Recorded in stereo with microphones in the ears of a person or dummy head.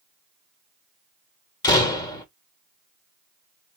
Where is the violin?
I don't hear a violin.